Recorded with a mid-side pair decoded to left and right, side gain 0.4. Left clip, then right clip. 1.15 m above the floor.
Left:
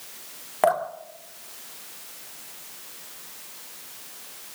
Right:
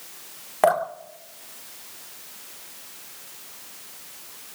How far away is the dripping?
About 2.5 m.